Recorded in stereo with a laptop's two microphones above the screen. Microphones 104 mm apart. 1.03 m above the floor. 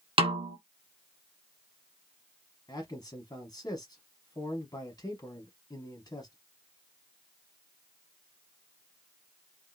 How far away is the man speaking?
About 1.0 m.